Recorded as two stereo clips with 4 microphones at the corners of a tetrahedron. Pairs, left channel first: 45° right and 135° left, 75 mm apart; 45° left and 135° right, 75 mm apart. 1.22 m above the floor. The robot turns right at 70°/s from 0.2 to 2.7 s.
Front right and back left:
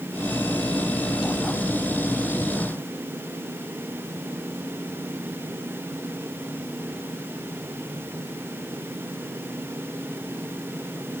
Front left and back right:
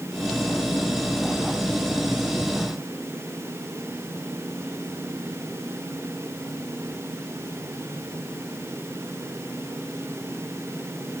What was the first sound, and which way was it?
Only background noise.